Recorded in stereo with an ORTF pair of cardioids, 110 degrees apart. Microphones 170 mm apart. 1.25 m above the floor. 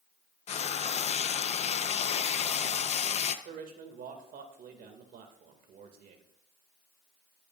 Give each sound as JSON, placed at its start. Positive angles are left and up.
{"t": 0.5, "sound": "frying", "azimuth_deg": 40, "distance_m": 0.7}
{"t": 3.5, "sound": "a man speaking", "azimuth_deg": -60, "distance_m": 1.9}